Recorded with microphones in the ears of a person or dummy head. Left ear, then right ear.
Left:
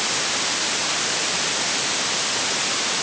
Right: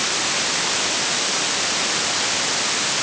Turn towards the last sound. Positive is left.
No sound to turn to.